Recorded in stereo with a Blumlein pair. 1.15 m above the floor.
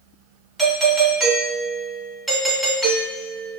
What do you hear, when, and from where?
0.6 s a doorbell: straight ahead, 1.4 m